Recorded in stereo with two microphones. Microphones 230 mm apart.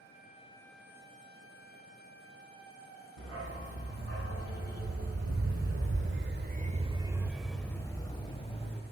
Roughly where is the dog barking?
Right.